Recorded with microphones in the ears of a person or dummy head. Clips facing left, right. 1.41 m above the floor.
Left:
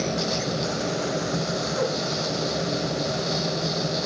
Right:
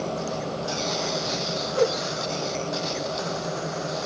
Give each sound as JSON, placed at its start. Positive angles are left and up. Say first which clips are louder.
{"t": 1.8, "sound": "a whoosh", "louder": "right 5 dB", "side_deg": -55, "distance_m": 1.7}